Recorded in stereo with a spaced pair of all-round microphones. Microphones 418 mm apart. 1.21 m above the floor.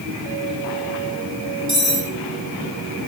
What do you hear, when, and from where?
1.7 s cutlery clinking: 30° right (ahead or behind), 4 m